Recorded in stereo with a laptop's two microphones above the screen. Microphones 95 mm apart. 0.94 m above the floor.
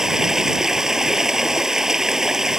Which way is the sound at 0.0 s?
5° right (ahead or behind).